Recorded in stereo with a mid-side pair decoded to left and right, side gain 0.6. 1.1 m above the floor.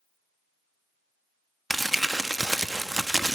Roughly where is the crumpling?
Ahead.